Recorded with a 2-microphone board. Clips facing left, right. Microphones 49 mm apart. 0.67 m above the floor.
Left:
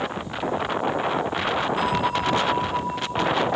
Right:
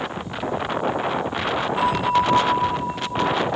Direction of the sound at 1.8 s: 30° right (ahead or behind).